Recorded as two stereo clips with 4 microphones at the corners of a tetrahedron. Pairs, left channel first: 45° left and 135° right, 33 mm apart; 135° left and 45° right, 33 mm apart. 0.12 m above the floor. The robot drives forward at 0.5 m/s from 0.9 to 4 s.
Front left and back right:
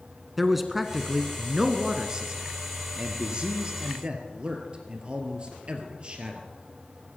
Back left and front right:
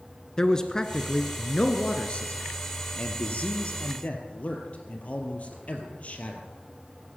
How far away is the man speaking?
About 1.1 m.